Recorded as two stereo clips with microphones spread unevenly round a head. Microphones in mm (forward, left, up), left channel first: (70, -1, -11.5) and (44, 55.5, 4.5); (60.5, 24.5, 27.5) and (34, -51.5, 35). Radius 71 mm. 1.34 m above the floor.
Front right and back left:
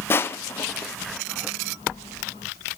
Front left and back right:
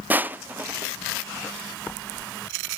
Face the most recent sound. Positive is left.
turn(degrees=-40)